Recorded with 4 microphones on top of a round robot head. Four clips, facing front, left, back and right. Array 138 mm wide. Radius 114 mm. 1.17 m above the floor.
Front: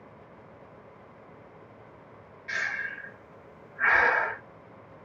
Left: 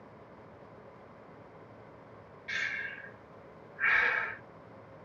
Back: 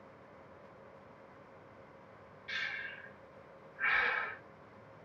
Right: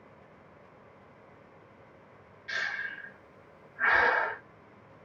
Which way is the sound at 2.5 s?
40° right.